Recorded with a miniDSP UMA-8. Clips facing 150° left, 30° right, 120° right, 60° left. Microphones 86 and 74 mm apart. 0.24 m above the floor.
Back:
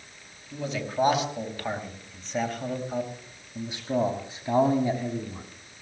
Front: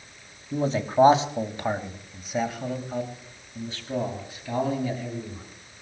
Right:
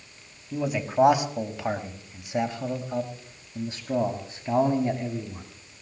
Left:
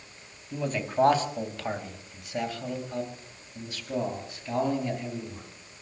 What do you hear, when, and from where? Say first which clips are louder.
0.5 s a man speaking: front 7 dB, right 3 dB; 45° right, 1.9 m; by 5.4 s 175° right, 2.5 m